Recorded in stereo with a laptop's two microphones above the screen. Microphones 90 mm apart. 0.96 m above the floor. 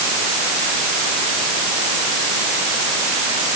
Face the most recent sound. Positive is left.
No sound to turn to.